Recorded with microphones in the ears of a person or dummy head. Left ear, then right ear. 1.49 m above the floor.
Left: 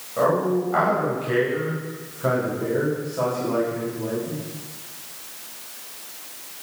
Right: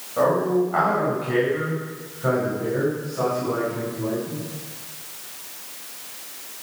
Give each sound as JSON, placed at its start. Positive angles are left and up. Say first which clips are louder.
{"t": 0.2, "sound": "a man speaking", "louder": "right 1 dB", "side_deg": 5, "distance_m": 9.0}